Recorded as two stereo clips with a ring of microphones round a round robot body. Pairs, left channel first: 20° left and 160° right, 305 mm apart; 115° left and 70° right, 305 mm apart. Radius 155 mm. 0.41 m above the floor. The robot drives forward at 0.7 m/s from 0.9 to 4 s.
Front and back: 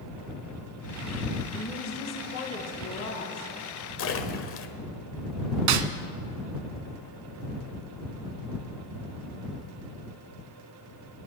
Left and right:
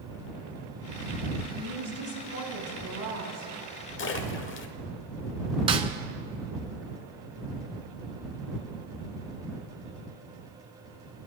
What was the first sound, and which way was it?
A woman speaking, 25° right.